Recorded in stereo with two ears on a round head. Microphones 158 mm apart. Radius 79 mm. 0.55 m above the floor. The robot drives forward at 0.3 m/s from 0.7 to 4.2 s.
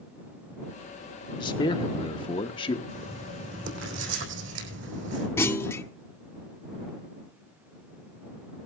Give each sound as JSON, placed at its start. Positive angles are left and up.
{"t": 1.4, "sound": "a man speaking", "side_deg": 25, "distance_m": 1.0}
{"t": 2.9, "sound": "writing", "side_deg": -85, "distance_m": 4.0}
{"t": 5.4, "sound": "a clunk", "side_deg": 15, "distance_m": 0.7}